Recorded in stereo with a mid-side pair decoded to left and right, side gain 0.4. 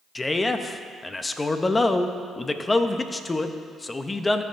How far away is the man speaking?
About 0.6 m.